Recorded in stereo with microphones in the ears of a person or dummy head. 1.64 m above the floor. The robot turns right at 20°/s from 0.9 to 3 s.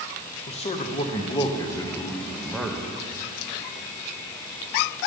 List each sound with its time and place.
0.5 s a man speaking: 145° left, 0.8 m; by 2.9 s 175° right, 0.8 m